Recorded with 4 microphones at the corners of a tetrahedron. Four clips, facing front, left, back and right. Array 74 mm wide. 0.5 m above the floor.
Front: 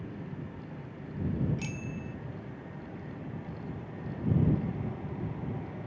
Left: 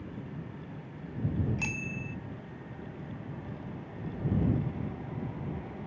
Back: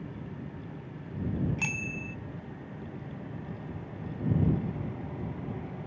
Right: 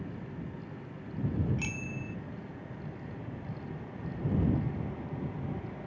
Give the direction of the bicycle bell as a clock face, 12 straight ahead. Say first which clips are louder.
Left 2 dB, back 4 dB; 7 o'clock.